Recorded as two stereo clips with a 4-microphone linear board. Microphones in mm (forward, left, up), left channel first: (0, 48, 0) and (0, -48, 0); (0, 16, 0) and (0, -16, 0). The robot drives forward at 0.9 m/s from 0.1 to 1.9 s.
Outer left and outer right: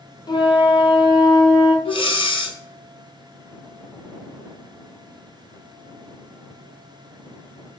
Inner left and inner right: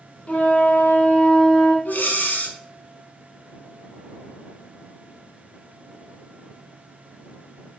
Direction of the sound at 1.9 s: 70° left (ahead or behind).